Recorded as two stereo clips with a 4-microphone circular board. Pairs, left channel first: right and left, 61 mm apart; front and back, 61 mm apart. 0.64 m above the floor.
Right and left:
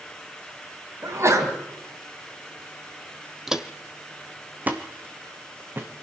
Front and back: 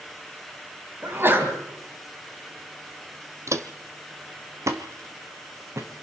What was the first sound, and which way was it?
A sneeze, 130° left.